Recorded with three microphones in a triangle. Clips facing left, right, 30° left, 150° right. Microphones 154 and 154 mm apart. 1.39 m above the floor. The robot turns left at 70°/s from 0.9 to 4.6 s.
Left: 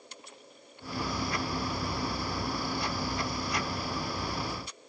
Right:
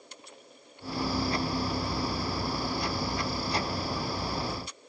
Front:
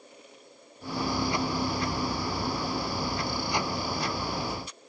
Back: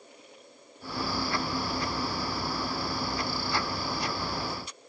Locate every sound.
Only background noise.